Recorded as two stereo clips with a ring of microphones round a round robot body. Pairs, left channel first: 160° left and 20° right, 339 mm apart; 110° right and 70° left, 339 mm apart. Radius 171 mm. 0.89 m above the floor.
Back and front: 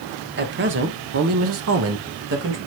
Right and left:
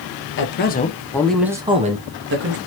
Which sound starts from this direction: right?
A man speaking, at 0.4 s.